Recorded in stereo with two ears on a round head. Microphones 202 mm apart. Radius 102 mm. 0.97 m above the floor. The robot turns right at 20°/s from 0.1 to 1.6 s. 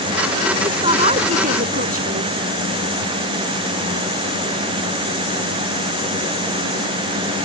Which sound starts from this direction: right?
A woman speaking, at 0.6 s.